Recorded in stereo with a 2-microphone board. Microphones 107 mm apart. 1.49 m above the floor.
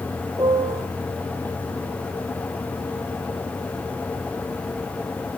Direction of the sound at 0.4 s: 30° right (ahead or behind).